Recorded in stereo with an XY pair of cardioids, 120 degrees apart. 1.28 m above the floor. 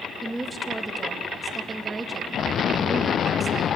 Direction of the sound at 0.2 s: 10° right.